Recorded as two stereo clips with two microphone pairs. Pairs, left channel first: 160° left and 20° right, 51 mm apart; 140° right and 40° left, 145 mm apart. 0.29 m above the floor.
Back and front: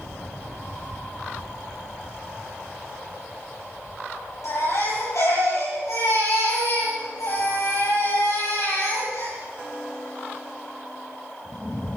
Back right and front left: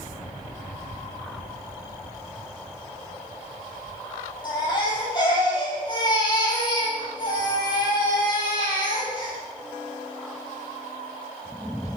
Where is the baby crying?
165° left, 7.5 m.